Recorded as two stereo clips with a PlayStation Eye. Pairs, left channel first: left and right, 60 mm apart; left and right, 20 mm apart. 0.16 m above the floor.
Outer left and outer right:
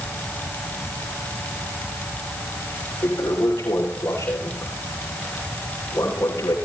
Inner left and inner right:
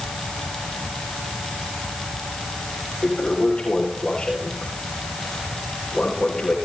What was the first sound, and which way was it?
A toilet flushing, 65° left (ahead or behind).